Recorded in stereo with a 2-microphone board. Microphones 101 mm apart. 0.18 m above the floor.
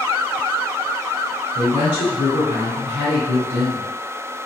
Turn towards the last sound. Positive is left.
turn(degrees=-20)  # may be behind; listen again after turning